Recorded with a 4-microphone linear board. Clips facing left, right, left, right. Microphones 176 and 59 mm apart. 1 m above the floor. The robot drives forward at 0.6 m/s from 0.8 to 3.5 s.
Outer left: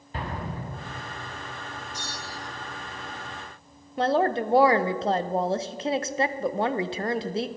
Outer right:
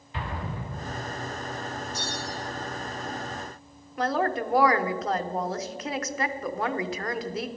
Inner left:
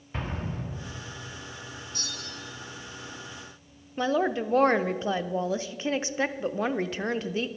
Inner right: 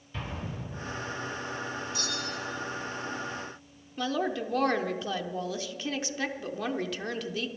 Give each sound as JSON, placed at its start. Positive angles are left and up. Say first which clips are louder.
{"t": 0.1, "sound": "an explosion", "louder": "outer left 1 dB, inner left 3 dB", "side_deg": 40, "distance_m": 1.5}
{"t": 1.9, "sound": "a bell", "louder": "outer right 5 dB, inner right 6 dB", "side_deg": 50, "distance_m": 3.0}
{"t": 4.0, "sound": "a woman speaking", "louder": "outer left 3 dB, inner left 4 dB", "side_deg": 30, "distance_m": 0.5}